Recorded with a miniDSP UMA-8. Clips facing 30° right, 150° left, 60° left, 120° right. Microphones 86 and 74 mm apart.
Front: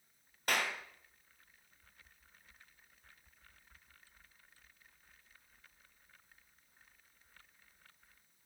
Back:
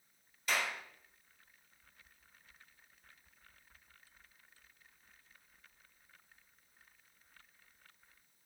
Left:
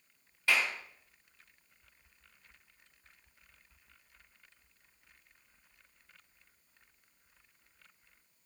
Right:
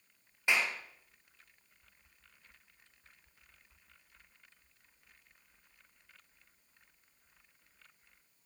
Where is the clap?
50° right, 2 m.